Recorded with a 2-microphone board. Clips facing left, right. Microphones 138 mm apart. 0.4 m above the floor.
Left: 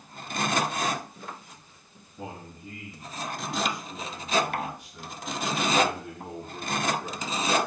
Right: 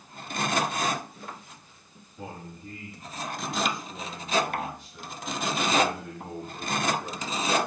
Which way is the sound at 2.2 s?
5° left (ahead or behind).